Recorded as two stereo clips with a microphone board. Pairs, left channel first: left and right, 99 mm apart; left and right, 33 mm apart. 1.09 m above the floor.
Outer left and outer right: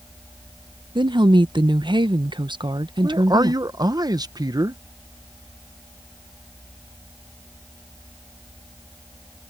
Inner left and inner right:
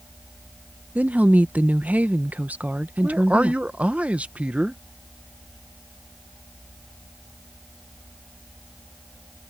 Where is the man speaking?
40° right (ahead or behind).